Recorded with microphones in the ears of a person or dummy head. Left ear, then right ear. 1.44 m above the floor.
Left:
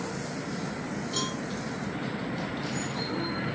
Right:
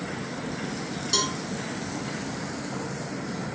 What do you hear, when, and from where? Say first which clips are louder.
1.1 s a cowbell: right 7 dB; 70° right (ahead or behind), 5 m